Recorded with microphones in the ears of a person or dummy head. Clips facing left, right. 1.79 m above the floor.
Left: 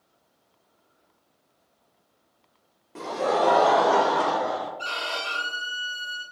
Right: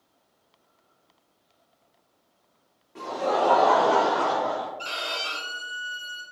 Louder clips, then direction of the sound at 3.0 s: Left 1 dB; 55° left (ahead or behind).